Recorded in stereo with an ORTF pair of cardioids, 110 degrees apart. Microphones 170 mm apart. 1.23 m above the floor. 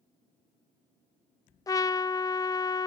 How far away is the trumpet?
About 0.8 m.